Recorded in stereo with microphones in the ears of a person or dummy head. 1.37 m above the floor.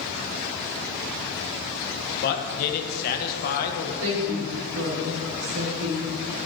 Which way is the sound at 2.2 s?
55° left (ahead or behind).